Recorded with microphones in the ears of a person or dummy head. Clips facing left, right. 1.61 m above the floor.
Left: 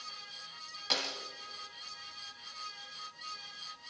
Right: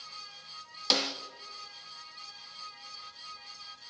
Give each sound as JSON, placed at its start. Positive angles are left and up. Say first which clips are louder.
{"t": 0.9, "sound": "a snare drum", "louder": "right 7 dB", "side_deg": -60, "distance_m": 1.6}